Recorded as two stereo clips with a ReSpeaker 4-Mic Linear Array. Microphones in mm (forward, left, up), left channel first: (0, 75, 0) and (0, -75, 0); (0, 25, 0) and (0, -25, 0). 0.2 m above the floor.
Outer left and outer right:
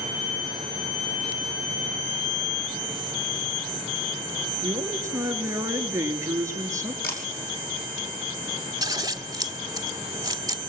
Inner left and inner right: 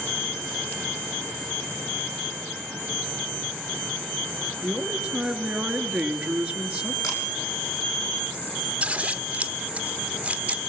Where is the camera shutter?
85° left, 5 m.